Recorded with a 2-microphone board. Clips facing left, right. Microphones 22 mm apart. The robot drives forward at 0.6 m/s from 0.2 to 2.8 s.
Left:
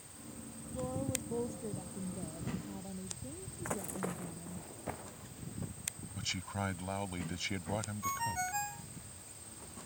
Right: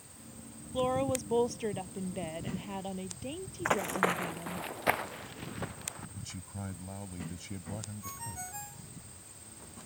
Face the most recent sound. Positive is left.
turn(degrees=35)  # may be behind; listen again after turning